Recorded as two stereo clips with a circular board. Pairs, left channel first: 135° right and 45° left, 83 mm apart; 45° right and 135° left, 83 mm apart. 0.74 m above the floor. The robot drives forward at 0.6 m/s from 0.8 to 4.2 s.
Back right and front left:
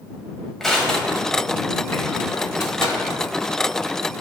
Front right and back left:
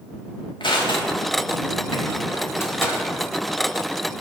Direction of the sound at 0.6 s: 50° right.